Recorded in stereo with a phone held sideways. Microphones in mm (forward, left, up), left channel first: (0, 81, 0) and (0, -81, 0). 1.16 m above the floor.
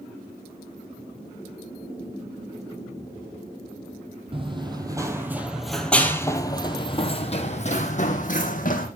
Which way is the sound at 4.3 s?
35° right (ahead or behind).